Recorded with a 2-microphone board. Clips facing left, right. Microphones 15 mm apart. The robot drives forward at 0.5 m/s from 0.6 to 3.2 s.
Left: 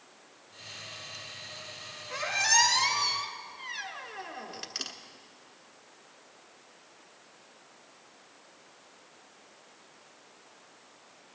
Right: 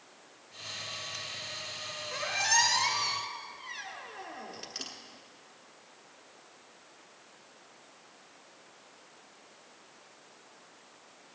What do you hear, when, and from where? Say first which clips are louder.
2.1 s a squeak: left 2 dB; 20° left (ahead or behind), 1.8 m; by 4.9 s 30° left (ahead or behind), 1.3 m